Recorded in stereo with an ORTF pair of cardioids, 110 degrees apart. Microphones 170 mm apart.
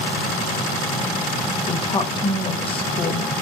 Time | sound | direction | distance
1.7 | a woman speaking | 30° left | 1.0 m